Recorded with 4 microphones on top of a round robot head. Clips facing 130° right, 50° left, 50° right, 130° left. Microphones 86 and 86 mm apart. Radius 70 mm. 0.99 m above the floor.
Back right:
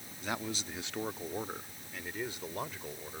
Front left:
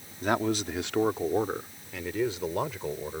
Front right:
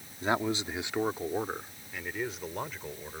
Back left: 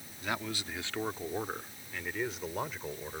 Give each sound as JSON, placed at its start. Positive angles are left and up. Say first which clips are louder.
{"t": 0.2, "sound": "a man speaking", "louder": "front left 11 dB, front right 7 dB", "azimuth_deg": 10}